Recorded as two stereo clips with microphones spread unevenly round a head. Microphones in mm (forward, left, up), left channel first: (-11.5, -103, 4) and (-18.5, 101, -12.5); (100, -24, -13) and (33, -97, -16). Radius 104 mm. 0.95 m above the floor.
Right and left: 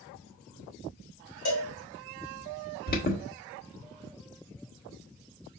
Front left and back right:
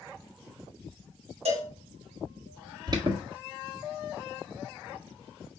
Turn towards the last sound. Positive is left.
turn(degrees=-115)